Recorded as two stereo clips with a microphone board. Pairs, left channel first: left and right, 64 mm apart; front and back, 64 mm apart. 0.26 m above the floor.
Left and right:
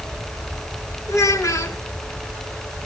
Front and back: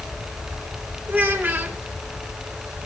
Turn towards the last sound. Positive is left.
turn(degrees=125)